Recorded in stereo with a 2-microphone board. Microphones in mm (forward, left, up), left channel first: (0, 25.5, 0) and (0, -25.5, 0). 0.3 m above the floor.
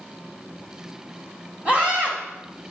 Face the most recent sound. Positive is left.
turn(degrees=-30)  # may be behind; listen again after turning